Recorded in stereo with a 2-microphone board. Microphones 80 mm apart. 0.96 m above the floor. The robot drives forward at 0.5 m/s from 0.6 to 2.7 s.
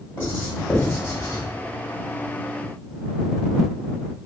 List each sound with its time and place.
0.2 s writing: 35° left (ahead or behind), 1.6 m; by 1.4 s 40° left (ahead or behind), 1.3 m